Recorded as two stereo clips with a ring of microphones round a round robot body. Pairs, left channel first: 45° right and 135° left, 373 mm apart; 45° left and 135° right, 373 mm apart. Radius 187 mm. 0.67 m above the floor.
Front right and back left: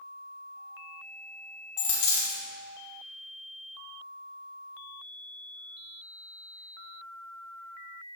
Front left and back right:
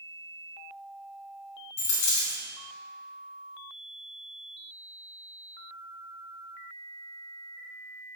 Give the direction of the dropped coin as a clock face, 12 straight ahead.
12 o'clock.